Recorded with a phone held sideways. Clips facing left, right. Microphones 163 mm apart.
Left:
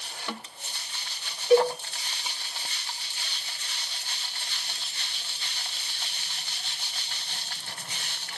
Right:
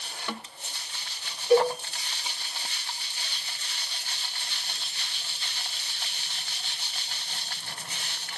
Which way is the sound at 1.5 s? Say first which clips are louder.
Left 1 dB; 5° left (ahead or behind).